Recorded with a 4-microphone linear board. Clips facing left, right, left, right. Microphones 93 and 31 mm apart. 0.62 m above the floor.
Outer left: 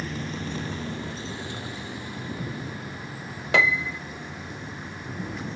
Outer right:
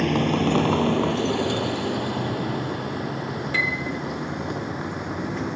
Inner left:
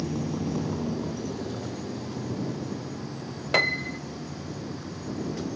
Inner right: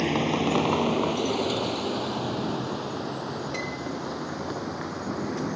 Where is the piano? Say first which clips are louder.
Outer left 7 dB, inner left 7 dB; 80° left.